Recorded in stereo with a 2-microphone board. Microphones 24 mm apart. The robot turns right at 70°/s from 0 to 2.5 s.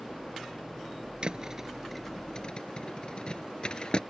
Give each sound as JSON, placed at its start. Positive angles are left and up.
{"t": 1.2, "sound": "a thud", "side_deg": -45}